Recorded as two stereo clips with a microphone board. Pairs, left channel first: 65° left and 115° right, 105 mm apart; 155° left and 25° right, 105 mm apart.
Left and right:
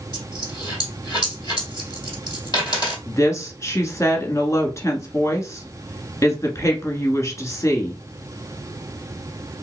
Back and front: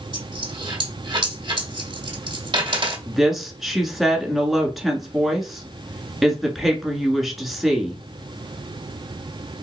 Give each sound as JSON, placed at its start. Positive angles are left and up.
{"t": 0.1, "sound": "a dropped coin", "azimuth_deg": 15, "distance_m": 2.0}
{"t": 3.1, "sound": "a woman speaking", "azimuth_deg": 65, "distance_m": 1.2}